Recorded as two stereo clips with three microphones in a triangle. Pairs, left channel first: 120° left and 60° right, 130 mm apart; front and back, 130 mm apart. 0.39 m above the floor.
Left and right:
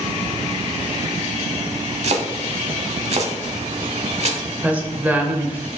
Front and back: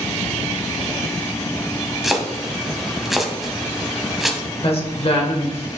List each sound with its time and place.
2.0 s chopping: 90° right, 0.8 m
4.6 s a woman speaking: 15° left, 1.2 m